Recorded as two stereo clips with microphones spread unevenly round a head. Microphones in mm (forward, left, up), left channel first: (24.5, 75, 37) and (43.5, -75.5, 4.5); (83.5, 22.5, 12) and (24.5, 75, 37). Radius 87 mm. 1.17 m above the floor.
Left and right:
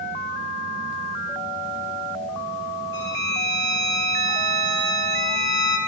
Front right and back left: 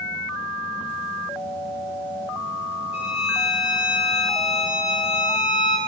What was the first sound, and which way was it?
A violin, 105° right.